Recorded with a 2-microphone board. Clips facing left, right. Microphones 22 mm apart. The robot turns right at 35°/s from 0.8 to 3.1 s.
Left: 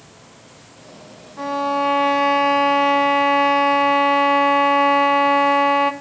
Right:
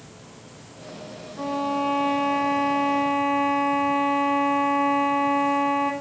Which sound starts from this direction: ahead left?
A violin, at 1.4 s.